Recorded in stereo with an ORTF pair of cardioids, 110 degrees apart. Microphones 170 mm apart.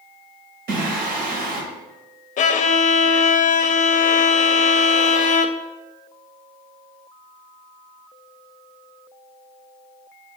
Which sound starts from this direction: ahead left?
A violin, at 2.4 s.